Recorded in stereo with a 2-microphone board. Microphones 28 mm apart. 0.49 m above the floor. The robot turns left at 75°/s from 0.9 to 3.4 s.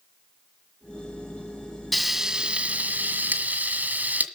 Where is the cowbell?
No cowbell in this recording.